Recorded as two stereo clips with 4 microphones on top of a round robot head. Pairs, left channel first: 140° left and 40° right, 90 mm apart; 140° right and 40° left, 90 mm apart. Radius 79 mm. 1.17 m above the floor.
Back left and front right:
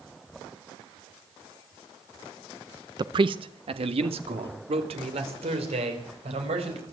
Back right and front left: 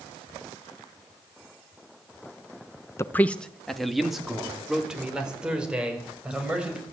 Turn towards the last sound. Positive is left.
turn(degrees=-45)